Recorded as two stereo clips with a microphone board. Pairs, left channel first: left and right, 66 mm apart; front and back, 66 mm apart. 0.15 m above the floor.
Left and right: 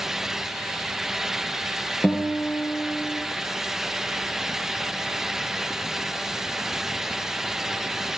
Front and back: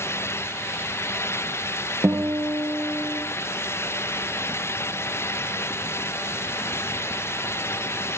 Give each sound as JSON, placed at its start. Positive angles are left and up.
{"t": 2.0, "sound": "a guitar", "azimuth_deg": 150, "distance_m": 3.0}